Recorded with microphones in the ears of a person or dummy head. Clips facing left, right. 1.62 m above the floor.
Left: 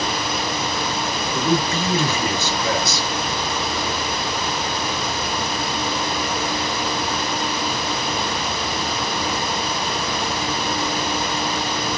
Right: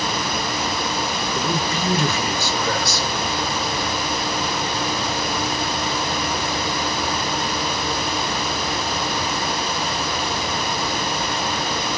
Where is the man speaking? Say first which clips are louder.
Left 5 dB; 25° left (ahead or behind), 1.8 m.